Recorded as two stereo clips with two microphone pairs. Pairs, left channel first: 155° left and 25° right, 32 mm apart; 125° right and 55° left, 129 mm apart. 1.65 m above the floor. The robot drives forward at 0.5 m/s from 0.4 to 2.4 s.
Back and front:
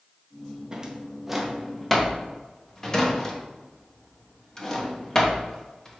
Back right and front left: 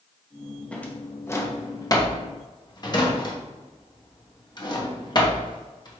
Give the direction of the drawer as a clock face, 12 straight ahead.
2 o'clock.